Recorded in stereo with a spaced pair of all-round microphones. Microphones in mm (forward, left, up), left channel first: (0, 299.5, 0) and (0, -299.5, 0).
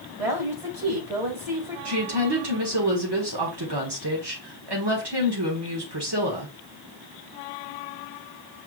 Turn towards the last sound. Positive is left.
turn(degrees=-45)  # may be behind; listen again after turning